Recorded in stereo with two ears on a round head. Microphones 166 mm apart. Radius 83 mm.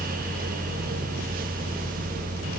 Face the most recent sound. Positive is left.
No sound to turn to.